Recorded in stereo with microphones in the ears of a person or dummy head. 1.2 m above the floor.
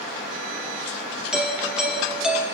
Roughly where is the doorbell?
Centre.